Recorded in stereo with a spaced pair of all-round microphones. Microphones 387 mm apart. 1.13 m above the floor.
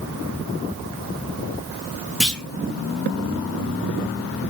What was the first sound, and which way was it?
A clunk, centre (ahead or behind).